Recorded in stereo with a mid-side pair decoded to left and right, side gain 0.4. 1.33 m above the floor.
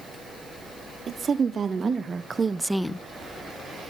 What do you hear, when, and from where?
1.1 s a woman speaking: 55° right, 3 m; by 3.0 s 45° left, 0.6 m